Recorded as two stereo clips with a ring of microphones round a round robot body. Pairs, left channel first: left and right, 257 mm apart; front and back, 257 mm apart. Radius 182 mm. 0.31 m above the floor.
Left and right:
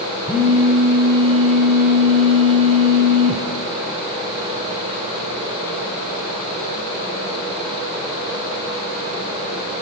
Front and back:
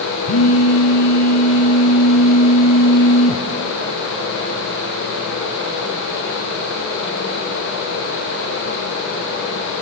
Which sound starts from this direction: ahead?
A phone buzzing, at 0.3 s.